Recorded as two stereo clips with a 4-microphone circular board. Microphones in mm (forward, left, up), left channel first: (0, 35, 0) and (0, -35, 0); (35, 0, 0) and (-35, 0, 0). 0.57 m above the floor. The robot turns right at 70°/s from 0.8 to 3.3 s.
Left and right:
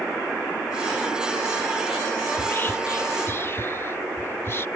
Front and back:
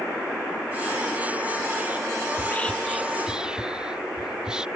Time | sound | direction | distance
2.3 | whispering | 40° left | ?